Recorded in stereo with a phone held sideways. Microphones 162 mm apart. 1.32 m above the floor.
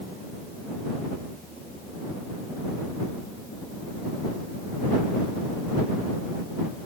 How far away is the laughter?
I don't hear laughter.